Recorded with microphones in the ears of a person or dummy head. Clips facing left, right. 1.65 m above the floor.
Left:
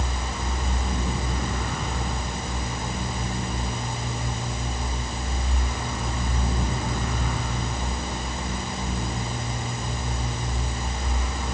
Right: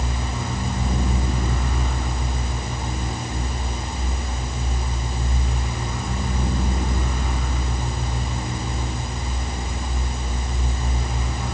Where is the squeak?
No squeak in this recording.